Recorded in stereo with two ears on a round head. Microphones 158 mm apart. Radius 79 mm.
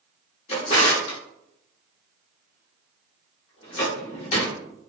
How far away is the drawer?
About 0.8 m.